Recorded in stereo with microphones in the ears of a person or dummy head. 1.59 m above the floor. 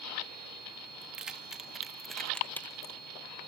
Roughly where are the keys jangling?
Centre.